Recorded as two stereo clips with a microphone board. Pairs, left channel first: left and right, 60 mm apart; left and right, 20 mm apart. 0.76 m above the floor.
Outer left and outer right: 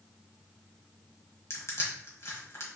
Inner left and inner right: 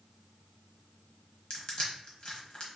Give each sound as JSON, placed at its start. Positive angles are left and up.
{"t": 1.5, "sound": "crushing", "side_deg": 50, "distance_m": 1.4}